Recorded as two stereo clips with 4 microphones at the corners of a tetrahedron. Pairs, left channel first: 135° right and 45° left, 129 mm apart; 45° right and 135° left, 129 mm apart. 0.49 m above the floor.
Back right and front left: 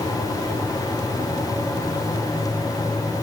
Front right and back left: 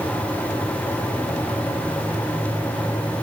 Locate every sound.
Only background noise.